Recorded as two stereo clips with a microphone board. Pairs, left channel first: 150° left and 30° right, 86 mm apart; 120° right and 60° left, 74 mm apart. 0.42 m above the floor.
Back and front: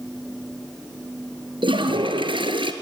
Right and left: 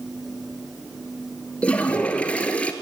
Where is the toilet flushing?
45° right, 1.5 m.